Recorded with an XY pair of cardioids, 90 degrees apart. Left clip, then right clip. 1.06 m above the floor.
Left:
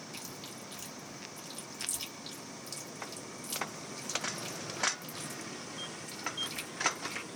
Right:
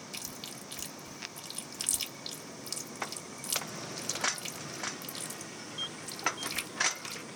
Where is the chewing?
60° right, 1.4 m.